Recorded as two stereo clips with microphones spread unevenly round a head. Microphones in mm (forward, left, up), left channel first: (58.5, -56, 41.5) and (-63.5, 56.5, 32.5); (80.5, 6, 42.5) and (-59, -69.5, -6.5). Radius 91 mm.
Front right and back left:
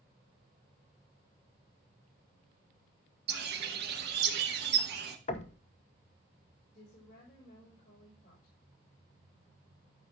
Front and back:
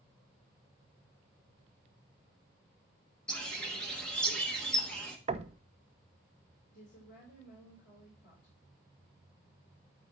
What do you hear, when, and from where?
3.3 s a bird: 110° left, 1.3 m
5.3 s knocking: 95° right, 0.9 m
6.7 s a woman speaking: 5° left, 6 m